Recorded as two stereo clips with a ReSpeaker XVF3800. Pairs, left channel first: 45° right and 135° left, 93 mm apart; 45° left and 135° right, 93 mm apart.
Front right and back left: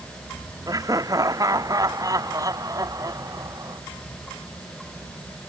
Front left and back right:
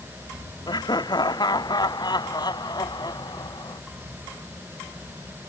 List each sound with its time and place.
0.7 s laughter: 85° left